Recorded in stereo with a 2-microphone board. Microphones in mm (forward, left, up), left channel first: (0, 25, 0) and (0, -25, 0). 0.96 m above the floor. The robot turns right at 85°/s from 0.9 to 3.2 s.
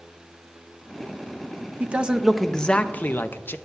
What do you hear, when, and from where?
1.8 s a man speaking: 50° right, 0.6 m; by 3.6 s 70° left, 0.6 m